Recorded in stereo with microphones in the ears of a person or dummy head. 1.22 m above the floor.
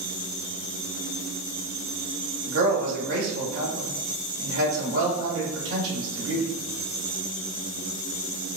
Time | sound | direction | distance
2.5 | a man speaking | 85° right | 1.7 m